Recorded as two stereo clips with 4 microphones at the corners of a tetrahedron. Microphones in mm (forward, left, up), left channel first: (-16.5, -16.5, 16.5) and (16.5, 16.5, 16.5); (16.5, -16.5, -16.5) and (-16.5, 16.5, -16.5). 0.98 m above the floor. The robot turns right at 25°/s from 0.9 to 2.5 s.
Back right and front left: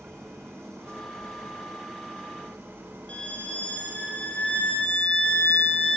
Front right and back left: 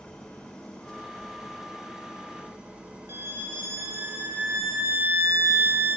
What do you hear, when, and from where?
0.0 s an engine running: 25° left, 3.5 m; by 6.0 s 65° left, 3.5 m
3.1 s a violin: 160° left, 5.5 m